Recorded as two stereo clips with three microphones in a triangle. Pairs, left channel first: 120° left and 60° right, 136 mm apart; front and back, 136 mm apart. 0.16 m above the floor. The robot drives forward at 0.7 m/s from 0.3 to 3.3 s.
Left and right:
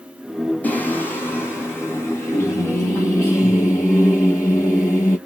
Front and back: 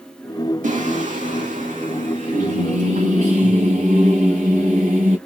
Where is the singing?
160° right, 2 m; by 5.2 s 170° right, 4 m.